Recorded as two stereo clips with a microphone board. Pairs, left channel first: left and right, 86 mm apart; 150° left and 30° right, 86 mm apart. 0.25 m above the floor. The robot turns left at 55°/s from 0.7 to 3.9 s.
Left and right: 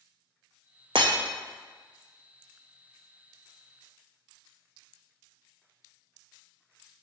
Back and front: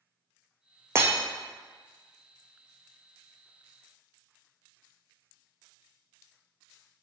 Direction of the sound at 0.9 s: 85° right.